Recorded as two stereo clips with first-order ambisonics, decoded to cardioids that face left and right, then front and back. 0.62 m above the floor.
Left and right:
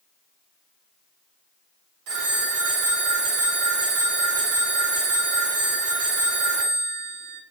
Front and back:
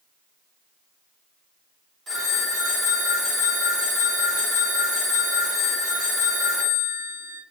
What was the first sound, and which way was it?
A phone ringing, 105° right.